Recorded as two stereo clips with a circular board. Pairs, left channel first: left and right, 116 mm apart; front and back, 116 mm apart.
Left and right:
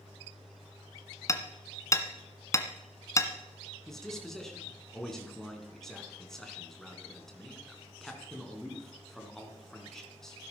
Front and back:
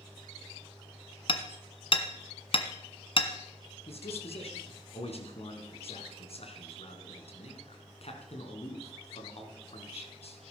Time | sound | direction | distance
1.3 | hammering | 30° left | 1.6 m
3.9 | a man speaking | 5° left | 3.5 m